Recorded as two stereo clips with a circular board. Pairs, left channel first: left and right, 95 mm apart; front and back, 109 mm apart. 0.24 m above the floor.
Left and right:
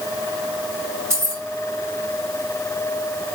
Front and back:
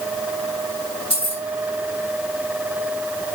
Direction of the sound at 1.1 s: 30° right.